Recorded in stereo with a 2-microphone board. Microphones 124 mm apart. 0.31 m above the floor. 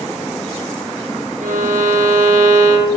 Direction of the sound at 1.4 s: 80° right.